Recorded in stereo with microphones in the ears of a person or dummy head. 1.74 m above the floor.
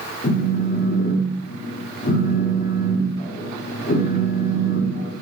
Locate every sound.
0.2 s a phone buzzing: 50° left (ahead or behind), 1.6 m